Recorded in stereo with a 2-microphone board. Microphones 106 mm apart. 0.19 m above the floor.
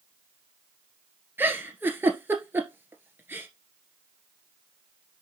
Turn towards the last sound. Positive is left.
turn(degrees=-20)  # may be behind; listen again after turning